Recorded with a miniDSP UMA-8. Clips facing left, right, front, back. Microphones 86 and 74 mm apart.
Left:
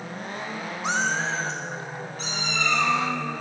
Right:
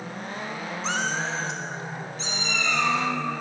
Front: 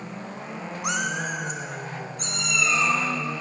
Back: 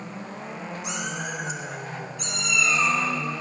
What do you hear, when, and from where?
0.8 s a cat meowing: 15° left, 1.1 m; by 3.0 s 50° left, 4 m